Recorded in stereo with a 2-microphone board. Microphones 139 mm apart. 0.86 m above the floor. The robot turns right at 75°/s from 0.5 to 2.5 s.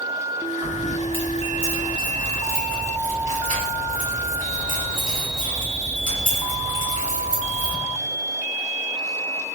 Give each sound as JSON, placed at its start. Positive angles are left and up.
{"t": 0.6, "sound": "keys jangling", "side_deg": -25, "distance_m": 1.5}